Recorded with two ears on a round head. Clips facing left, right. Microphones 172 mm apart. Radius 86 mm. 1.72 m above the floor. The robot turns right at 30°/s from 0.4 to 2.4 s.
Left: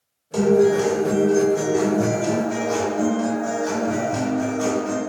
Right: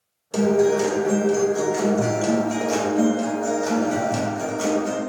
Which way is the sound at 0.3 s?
145° right.